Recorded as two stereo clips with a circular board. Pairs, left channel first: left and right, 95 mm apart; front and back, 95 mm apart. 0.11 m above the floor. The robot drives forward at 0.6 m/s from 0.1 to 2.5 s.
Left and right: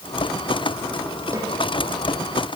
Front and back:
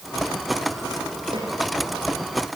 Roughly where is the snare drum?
Behind right.